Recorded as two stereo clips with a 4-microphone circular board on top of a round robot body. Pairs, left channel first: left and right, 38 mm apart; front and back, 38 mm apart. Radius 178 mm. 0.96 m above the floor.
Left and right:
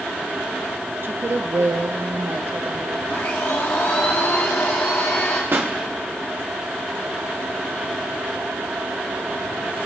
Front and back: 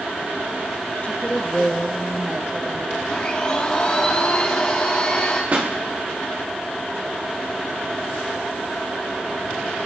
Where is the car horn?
I don't hear a car horn.